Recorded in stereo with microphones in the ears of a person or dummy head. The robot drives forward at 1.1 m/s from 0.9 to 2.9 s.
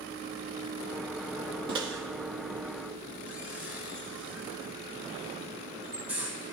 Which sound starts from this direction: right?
A microwave, at 1.7 s.